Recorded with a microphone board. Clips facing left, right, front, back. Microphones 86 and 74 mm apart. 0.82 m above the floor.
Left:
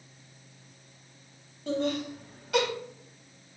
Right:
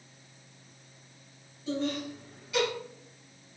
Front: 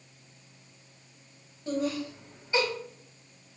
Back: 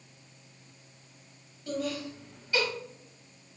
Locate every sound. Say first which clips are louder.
1.7 s laughter: left 3 dB, front 3 dB; 65° left, 4 m